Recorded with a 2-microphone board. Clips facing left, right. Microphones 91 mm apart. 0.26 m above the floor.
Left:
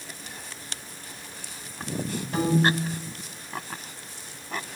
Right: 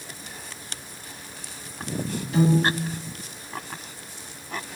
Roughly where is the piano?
Left.